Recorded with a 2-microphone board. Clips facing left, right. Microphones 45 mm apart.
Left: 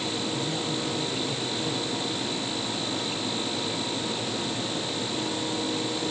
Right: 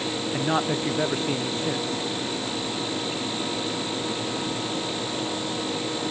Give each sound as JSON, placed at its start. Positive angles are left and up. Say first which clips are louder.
{"t": 0.3, "sound": "a man speaking", "louder": "right 5 dB", "side_deg": -70}